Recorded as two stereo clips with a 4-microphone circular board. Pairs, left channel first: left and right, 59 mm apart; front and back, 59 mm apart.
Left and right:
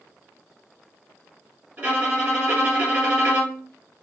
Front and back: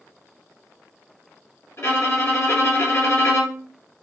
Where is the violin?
25° right, 1.8 m.